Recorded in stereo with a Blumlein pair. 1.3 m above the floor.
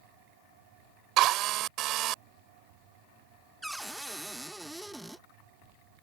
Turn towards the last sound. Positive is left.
turn(degrees=-5)